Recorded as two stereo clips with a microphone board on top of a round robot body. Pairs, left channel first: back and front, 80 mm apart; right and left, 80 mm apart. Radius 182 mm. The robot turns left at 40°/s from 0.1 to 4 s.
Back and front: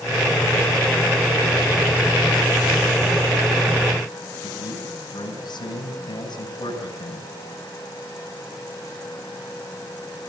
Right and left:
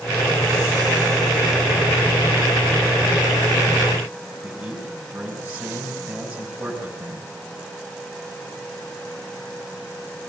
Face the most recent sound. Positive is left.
turn(degrees=155)